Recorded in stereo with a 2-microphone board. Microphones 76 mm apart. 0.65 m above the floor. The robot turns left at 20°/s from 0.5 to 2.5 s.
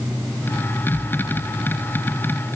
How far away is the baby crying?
No baby crying in this recording.